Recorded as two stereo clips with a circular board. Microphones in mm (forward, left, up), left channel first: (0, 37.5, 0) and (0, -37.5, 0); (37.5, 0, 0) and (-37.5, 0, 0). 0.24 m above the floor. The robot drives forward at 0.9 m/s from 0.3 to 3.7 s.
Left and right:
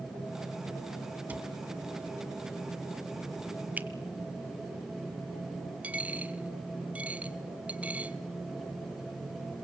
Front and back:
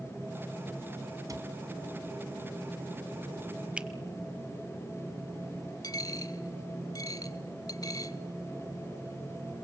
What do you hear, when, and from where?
1.3 s a cupboard door: 155° right, 1.5 m; by 1.5 s 160° right, 1.6 m
3.8 s a finger snap: 125° right, 1.0 m
5.8 s a dropped coin: 20° right, 0.9 m